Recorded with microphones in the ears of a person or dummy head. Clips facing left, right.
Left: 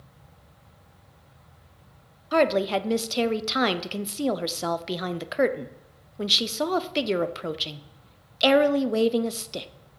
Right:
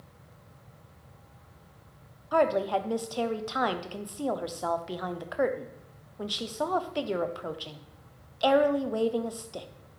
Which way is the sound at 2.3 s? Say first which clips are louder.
Left 3 dB; 45° left (ahead or behind).